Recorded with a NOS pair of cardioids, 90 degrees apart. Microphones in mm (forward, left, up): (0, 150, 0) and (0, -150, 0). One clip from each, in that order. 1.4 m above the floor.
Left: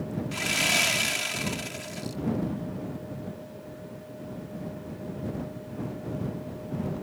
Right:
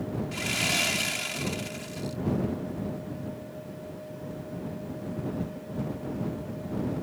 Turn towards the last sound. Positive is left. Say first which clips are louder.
# left 3 dB
turn(degrees=25)